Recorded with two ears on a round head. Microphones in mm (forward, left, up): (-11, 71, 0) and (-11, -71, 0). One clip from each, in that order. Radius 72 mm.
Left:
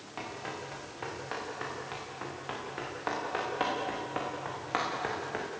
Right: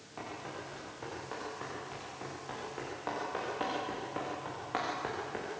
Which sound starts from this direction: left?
Running footsteps, at 0.2 s.